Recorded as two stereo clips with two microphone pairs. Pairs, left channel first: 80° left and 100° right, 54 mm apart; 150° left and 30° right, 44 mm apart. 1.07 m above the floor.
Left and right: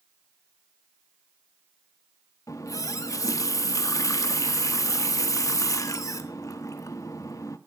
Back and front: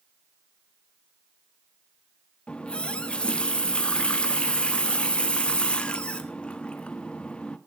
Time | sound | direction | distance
2.5 | a running tap | 85° left | 1.2 m